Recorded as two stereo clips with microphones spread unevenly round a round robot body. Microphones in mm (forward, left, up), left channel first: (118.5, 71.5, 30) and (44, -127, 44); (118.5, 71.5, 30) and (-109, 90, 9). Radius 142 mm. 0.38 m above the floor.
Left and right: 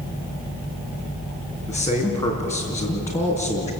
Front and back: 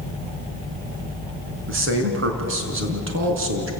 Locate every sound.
1.7 s a man speaking: 150° left, 4 m